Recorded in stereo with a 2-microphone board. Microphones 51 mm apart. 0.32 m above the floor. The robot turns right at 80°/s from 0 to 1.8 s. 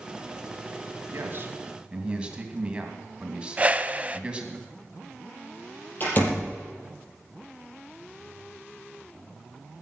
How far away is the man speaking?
About 2.5 m.